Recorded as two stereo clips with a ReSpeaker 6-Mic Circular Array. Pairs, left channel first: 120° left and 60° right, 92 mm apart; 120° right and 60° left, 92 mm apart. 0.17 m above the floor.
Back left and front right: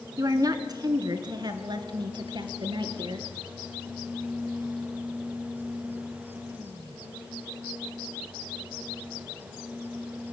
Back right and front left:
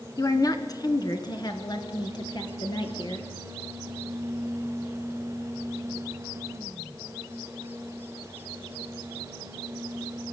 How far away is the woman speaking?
About 1.8 m.